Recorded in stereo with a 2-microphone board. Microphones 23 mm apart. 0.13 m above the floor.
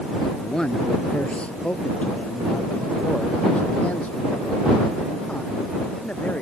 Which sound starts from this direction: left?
A man speaking, at 0.4 s.